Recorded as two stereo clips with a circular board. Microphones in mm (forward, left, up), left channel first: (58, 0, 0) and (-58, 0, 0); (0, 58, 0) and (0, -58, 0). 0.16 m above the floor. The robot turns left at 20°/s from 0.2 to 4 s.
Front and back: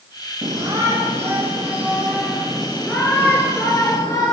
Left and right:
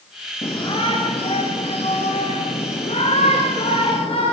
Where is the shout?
130° left, 3 m; by 4.3 s 60° left, 3 m.